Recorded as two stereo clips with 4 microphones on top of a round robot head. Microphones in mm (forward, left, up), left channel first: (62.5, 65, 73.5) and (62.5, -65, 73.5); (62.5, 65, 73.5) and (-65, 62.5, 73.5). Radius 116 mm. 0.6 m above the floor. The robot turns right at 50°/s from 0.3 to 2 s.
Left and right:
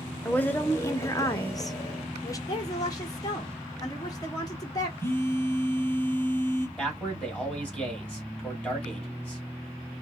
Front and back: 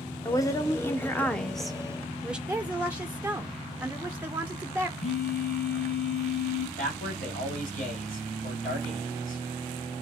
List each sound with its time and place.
0.2 s a woman speaking: 20° left, 0.8 m; by 2.4 s 105° left, 0.8 m
2.5 s a woman speaking: 115° left, 0.7 m
5.0 s a phone buzzing: 20° left, 1.4 m
6.8 s a man speaking: 5° left, 2 m